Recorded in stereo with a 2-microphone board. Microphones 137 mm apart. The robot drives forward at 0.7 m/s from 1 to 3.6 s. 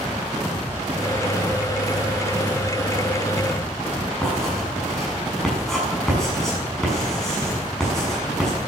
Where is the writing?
5° left (ahead or behind), 6 m.